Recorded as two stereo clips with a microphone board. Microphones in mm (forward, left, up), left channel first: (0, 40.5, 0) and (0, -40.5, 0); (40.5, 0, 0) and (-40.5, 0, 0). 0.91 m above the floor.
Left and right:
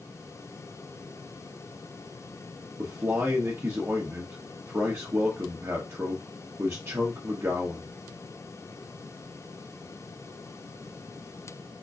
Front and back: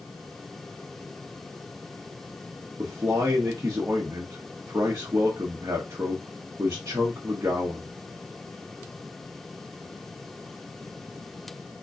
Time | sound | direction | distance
2.8 | a man speaking | 135° right | 0.8 m